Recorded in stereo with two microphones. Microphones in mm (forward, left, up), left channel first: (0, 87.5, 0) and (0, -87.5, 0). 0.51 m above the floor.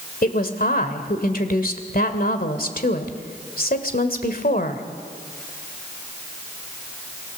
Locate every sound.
0.2 s a woman speaking: 55° left (ahead or behind), 2 m